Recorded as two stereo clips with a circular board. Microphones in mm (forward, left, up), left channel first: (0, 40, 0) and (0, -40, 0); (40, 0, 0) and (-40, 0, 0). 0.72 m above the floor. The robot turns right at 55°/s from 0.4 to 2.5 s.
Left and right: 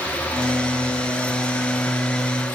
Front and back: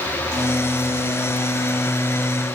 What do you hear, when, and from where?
Only background noise.